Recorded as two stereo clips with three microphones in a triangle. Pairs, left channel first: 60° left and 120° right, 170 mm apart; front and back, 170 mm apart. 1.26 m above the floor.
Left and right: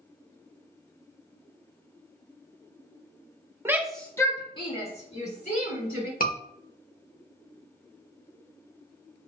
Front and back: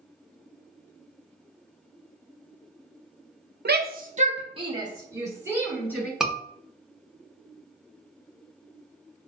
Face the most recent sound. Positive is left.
turn(degrees=90)